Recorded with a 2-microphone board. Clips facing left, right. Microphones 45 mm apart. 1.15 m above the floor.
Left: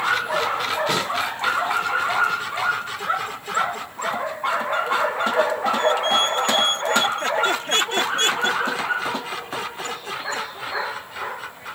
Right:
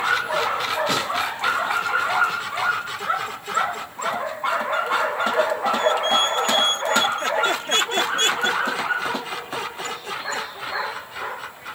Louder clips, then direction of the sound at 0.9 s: Even; centre (ahead or behind).